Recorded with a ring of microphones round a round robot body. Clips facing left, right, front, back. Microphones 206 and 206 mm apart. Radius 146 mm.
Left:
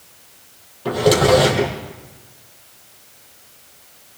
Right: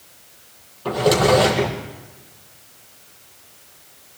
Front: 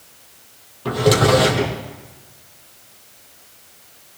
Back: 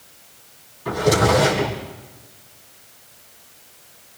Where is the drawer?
10° left, 5.5 m.